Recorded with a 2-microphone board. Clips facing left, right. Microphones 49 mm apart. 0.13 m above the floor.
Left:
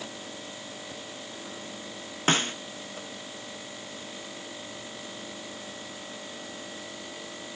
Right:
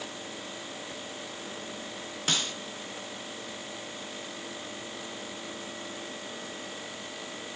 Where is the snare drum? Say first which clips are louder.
Left 6 dB; 40° left (ahead or behind), 1.0 m.